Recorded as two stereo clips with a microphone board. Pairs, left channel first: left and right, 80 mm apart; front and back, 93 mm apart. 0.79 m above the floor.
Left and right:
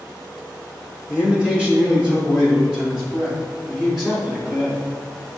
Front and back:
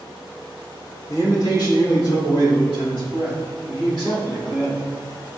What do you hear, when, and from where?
1.1 s a man speaking: 25° right, 1.2 m; by 4.8 s 5° right, 3.5 m